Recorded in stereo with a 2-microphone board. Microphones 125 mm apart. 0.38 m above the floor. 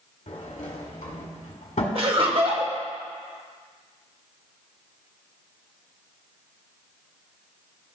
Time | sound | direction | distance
0.3 | a sliding door | 70° left (ahead or behind) | 1.5 m
1.9 | laughter | 50° right (ahead or behind) | 1.5 m